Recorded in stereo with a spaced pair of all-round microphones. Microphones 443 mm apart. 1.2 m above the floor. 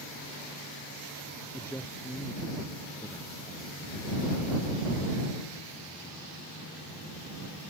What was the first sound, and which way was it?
A man speaking, 5° left (ahead or behind).